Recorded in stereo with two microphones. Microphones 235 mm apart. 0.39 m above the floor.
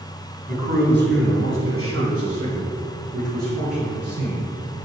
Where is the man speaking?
35° right (ahead or behind), 3 m; by 4.4 s 75° right (ahead or behind), 6 m.